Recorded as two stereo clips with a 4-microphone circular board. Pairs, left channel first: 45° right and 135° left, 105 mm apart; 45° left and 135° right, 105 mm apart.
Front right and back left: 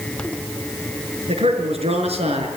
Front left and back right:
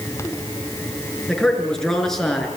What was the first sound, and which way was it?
A man speaking, 130° left.